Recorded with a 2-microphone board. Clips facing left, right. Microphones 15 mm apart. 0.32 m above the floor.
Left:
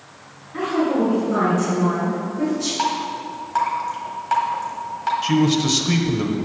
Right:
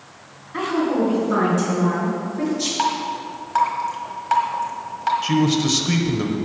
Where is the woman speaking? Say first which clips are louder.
Left 1 dB; 45° right (ahead or behind), 2.5 m; by 2.7 s 55° right (ahead or behind), 5 m.